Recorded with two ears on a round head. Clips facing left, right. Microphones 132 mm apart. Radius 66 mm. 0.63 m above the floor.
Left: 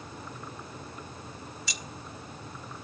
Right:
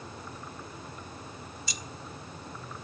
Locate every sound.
1.7 s keys jangling: 55° left (ahead or behind), 1.2 m